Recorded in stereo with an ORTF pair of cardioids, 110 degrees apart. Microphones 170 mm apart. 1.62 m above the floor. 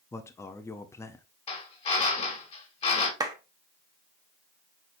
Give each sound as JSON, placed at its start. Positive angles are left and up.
{"t": 0.1, "sound": "a man speaking", "azimuth_deg": 15, "distance_m": 0.6}
{"t": 1.5, "sound": "a drill", "azimuth_deg": 35, "distance_m": 1.8}
{"t": 3.2, "sound": "a clap", "azimuth_deg": -20, "distance_m": 0.9}